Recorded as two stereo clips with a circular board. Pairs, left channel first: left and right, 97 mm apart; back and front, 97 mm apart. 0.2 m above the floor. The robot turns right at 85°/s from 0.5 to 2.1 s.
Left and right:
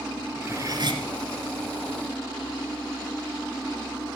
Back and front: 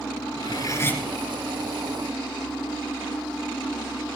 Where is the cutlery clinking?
145° right, 1.6 m; by 1.0 s 105° right, 1.6 m.